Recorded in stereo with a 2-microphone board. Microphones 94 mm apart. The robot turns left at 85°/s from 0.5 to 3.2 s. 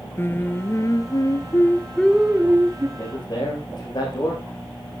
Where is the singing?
140° left, 1.1 m; by 2.9 s 60° right, 1.1 m.